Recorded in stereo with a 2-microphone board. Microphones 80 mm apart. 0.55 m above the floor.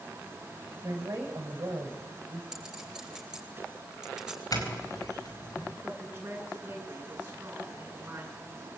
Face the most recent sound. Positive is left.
turn(degrees=-30)  # may be behind; listen again after turning